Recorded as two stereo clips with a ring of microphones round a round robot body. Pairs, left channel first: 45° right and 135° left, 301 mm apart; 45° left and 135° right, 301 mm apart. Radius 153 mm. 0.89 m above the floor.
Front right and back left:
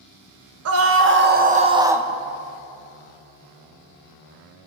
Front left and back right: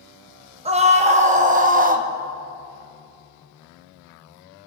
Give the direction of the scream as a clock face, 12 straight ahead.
7 o'clock.